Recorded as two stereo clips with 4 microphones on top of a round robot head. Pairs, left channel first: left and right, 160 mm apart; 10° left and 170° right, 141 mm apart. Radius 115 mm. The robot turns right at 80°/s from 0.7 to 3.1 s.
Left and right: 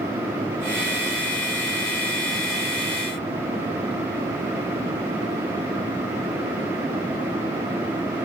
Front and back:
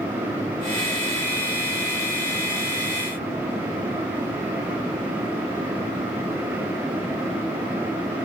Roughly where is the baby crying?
No baby crying in this recording.